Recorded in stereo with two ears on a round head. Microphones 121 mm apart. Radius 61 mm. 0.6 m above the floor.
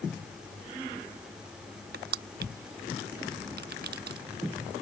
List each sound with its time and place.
1.9 s crushing: 75° right (ahead or behind)